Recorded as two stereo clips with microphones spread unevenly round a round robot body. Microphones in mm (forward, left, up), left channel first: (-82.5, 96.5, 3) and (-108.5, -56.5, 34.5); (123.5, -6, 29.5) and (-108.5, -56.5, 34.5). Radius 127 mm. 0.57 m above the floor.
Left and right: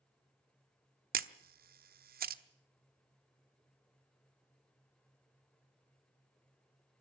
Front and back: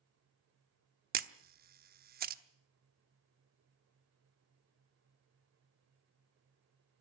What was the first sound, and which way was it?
A camera shutter, 120° right.